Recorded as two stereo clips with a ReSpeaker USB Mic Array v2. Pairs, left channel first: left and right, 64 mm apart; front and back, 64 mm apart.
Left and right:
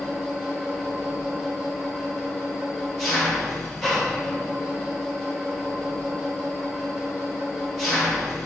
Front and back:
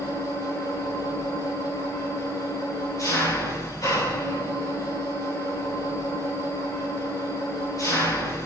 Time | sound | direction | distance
0.0 | an engine running | straight ahead | 3.5 m